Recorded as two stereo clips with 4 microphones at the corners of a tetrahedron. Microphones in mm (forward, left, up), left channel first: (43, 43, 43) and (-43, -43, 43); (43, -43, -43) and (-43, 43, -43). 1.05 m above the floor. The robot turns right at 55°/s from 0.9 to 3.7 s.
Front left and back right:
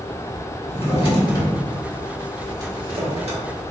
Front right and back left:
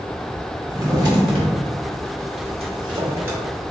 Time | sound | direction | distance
0.7 | a drawer | 75° left | 1.1 m